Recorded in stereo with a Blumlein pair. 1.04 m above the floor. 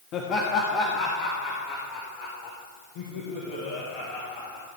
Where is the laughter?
30° left, 1.6 m; by 4.7 s 40° left, 5 m.